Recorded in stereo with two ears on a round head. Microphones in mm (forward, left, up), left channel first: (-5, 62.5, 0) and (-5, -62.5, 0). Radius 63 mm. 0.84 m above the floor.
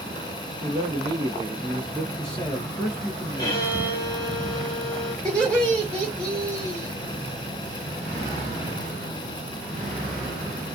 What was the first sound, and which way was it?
A man speaking, 40° right (ahead or behind).